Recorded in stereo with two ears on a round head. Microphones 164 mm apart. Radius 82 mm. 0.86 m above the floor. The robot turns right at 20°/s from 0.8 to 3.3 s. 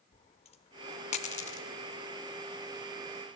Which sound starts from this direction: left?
A dropped coin, at 0.1 s.